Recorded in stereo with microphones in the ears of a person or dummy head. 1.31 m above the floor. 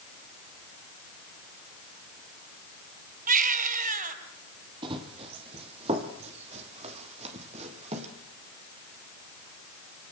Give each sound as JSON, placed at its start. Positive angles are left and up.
{"t": 3.3, "sound": "a baby crying", "side_deg": -45, "distance_m": 3.0}
{"t": 4.8, "sound": "running footsteps", "side_deg": -25, "distance_m": 3.0}